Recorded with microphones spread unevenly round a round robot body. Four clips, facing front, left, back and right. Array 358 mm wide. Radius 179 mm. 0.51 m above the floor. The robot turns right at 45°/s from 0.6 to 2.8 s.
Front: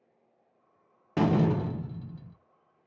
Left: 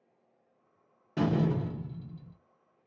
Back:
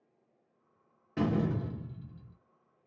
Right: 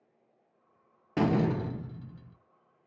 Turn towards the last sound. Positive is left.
turn(degrees=10)